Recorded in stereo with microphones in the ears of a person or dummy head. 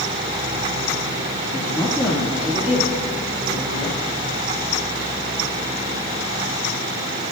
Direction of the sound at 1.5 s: 15° left (ahead or behind).